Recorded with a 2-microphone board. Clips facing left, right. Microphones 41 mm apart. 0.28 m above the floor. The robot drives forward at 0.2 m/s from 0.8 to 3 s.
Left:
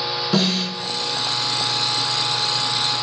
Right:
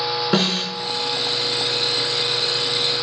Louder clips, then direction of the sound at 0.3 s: Left 1 dB; 40° right (ahead or behind).